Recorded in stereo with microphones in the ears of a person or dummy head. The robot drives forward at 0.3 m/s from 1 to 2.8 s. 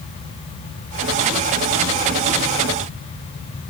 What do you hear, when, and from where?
Only background noise.